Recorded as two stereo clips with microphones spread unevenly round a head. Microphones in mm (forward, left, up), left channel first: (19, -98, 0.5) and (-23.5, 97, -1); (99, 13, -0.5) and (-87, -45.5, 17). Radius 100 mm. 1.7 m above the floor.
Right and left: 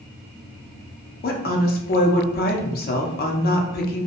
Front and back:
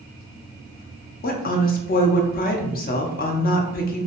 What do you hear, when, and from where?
1.2 s a woman speaking: 30° right, 0.5 m